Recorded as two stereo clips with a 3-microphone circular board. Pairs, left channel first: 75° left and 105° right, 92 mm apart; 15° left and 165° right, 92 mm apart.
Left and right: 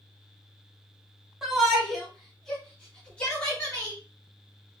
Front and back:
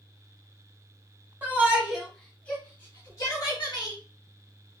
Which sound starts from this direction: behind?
A shout, at 1.4 s.